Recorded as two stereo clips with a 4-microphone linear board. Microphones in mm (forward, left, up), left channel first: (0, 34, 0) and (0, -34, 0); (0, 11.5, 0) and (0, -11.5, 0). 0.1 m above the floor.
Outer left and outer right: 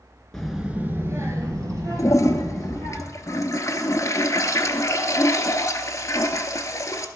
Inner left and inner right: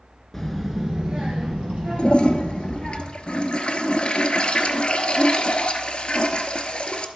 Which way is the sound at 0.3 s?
10° left (ahead or behind).